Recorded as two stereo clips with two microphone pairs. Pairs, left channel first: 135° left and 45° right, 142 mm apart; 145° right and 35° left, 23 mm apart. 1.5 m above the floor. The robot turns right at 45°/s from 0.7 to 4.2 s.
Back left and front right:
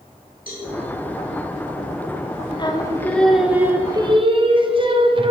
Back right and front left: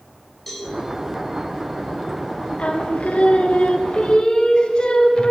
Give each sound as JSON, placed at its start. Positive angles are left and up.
{"t": 0.5, "sound": "a cowbell", "azimuth_deg": 135, "distance_m": 4.0}
{"t": 2.6, "sound": "singing", "azimuth_deg": -170, "distance_m": 0.8}